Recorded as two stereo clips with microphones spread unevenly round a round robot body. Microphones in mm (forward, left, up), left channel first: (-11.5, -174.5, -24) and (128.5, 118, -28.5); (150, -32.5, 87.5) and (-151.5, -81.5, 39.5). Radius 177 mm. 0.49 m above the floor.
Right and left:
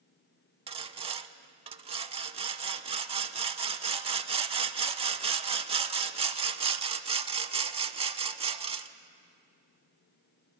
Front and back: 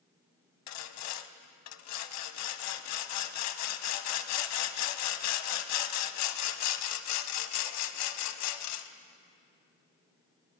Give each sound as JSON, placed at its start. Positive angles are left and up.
{"t": 0.7, "sound": "sawing", "azimuth_deg": -10, "distance_m": 0.5}